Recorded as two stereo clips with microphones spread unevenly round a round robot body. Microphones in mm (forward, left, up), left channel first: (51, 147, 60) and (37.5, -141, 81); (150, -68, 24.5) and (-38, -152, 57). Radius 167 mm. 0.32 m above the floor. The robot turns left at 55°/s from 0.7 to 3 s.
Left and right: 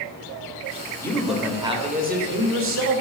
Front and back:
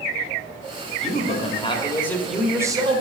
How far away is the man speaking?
About 1.1 m.